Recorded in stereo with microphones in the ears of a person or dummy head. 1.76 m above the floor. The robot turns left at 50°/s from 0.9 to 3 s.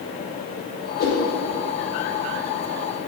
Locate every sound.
1.0 s a whoosh: 50° left (ahead or behind), 1.5 m; by 1.2 s 40° left (ahead or behind), 1.5 m